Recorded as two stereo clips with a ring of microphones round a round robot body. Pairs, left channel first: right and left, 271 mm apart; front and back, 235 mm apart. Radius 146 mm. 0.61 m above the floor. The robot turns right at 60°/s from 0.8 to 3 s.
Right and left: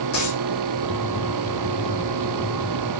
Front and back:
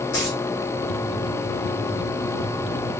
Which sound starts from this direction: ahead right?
A dropped coin, at 0.1 s.